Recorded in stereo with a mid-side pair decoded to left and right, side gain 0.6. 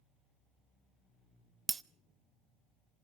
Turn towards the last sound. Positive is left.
turn(degrees=-25)